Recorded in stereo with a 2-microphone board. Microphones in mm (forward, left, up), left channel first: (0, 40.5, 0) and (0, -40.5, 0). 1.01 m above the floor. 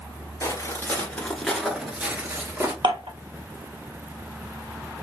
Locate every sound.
0.4 s footsteps: 35° left (ahead or behind), 1.1 m; by 2.7 s 25° right (ahead or behind), 1.4 m
2.8 s dishes clattering: 75° right (ahead or behind), 0.8 m